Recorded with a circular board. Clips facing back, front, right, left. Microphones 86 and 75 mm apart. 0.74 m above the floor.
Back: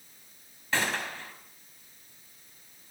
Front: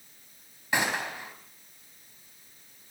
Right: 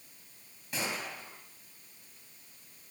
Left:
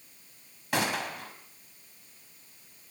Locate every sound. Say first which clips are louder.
0.7 s a gunshot: front 2 dB, left 7 dB; 75° left, 3.5 m